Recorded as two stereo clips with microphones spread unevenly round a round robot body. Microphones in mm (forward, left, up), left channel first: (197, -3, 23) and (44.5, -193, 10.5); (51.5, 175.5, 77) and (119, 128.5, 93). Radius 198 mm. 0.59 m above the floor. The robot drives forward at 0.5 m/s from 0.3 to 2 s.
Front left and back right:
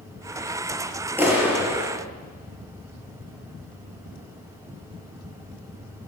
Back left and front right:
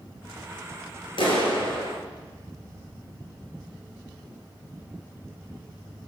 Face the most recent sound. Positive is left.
turn(degrees=140)